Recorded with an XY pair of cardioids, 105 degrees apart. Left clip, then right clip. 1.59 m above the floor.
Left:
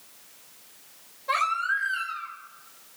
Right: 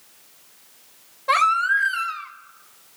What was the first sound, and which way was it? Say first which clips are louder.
A baby crying: right 7 dB; 70° right.